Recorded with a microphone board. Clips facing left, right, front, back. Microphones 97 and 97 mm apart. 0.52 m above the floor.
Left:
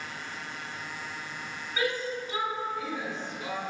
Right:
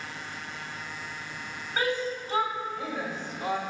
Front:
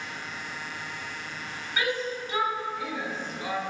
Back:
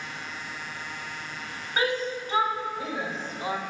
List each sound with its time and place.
1.8 s a shout: 135° right, 2.5 m; by 3.6 s 125° right, 1.3 m